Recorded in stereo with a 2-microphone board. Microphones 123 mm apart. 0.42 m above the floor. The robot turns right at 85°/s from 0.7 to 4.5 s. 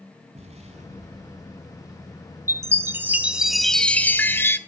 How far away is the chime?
About 1.0 m.